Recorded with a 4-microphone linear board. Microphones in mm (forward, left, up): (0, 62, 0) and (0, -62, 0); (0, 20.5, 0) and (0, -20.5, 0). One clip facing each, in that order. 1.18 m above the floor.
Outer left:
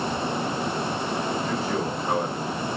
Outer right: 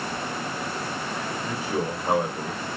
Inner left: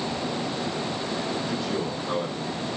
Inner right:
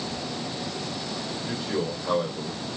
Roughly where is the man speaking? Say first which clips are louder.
Outer left 1 dB, inner left 1 dB; centre.